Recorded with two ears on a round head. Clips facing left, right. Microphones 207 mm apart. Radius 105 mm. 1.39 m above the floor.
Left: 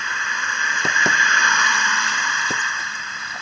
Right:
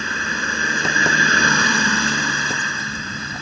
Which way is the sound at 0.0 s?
35° right (ahead or behind).